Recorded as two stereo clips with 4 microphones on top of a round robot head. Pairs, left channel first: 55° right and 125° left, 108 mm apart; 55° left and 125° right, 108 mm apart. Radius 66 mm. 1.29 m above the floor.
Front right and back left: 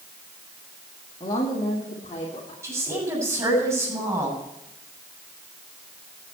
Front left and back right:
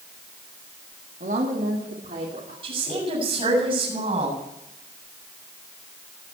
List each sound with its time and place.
1.2 s a woman speaking: 105° right, 2 m; by 2.5 s 100° right, 3.5 m
2.6 s a woman speaking: 170° right, 7.5 m